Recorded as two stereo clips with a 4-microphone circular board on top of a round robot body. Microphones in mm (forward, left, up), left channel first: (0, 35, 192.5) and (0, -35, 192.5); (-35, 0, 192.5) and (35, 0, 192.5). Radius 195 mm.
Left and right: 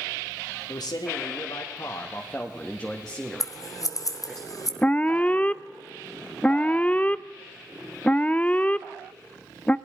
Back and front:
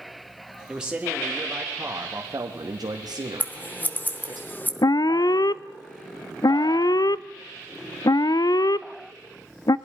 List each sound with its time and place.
0.7 s a man speaking: 80° left, 2 m; by 4.4 s 20° right, 2.5 m
3.4 s scissors: 120° left, 1.7 m
4.8 s an alarm: 160° left, 0.6 m